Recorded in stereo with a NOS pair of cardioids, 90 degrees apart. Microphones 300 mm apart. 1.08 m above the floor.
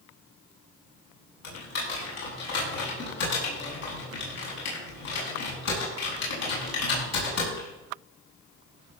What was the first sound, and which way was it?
Typing on a keyboard, 60° left.